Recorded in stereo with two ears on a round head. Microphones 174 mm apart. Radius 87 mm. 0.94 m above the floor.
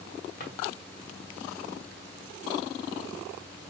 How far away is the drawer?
About 1.2 m.